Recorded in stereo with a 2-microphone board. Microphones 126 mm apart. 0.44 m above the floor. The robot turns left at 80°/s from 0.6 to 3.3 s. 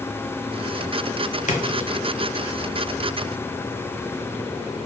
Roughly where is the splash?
Left.